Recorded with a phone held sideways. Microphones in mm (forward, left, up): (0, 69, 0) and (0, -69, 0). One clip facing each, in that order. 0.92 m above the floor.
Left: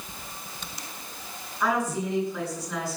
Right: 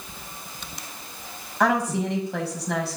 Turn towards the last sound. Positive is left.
turn(degrees=-80)